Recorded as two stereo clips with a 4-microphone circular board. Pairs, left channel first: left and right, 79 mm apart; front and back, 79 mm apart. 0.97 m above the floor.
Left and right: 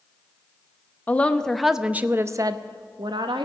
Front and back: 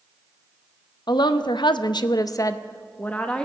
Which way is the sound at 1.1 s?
20° left.